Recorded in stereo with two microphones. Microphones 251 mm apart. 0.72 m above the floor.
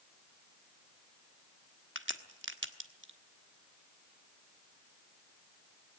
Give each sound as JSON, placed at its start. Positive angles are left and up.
{"t": 1.9, "sound": "a crack", "side_deg": -50, "distance_m": 1.2}